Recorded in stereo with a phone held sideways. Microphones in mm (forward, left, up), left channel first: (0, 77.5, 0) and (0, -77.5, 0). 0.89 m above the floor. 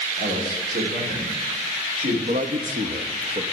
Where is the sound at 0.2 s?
70° right (ahead or behind), 2.5 m.